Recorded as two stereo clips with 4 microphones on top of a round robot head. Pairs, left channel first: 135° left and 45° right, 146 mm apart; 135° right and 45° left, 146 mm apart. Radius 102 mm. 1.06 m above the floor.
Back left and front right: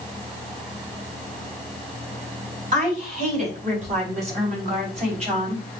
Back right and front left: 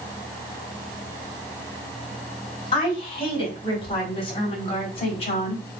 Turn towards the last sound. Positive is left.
turn(degrees=-85)